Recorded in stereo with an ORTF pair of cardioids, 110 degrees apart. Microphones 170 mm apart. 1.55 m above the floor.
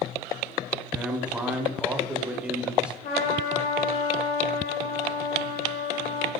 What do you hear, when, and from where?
0.9 s a man speaking: 5° right, 0.6 m
3.0 s a trumpet: 70° left, 1.3 m